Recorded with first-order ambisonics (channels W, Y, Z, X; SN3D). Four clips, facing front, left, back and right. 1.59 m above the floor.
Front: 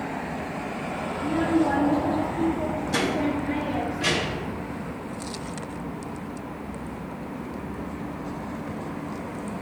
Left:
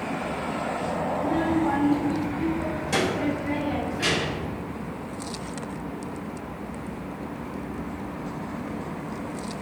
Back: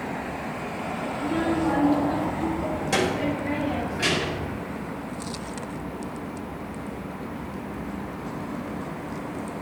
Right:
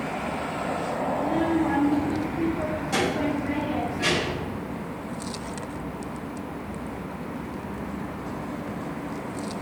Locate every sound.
1.1 s a child speaking: straight behind, 2.5 m; by 4.5 s 165° left, 5.5 m